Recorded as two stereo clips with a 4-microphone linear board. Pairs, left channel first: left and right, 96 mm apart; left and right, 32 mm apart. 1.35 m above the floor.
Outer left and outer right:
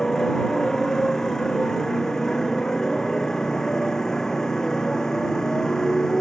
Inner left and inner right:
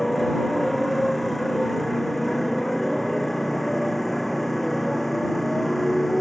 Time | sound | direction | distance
0.0 | a motorcycle | 5° left (ahead or behind) | ?